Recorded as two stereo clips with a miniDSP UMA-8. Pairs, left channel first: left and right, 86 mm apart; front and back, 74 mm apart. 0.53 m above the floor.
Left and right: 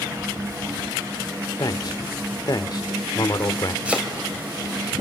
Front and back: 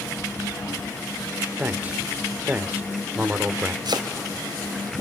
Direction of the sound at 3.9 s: 165° right.